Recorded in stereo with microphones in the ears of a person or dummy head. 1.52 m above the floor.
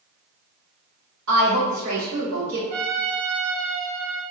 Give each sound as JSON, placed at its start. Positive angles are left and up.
{"t": 1.3, "sound": "a woman speaking", "side_deg": -75, "distance_m": 1.3}
{"t": 2.7, "sound": "a trumpet", "side_deg": -45, "distance_m": 1.4}